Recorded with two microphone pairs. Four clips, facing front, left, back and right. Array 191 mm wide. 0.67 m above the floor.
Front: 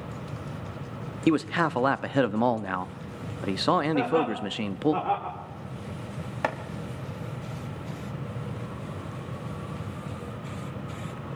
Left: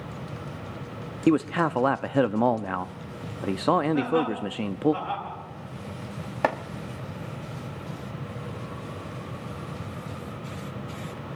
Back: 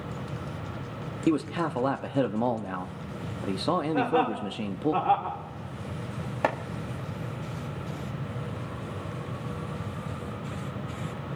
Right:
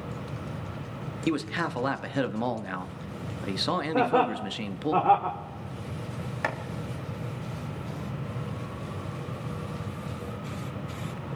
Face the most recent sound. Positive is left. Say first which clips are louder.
# left 7 dB, back 2 dB
turn(degrees=110)